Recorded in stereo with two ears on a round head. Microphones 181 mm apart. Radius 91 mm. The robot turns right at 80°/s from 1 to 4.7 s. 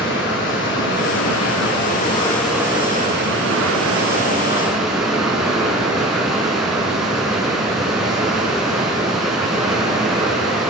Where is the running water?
60° left, 6 m; by 10.7 s straight ahead, 6 m.